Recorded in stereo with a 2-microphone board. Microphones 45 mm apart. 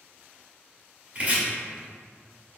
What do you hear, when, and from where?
1.1 s chopping: 35° right (ahead or behind), 1.2 m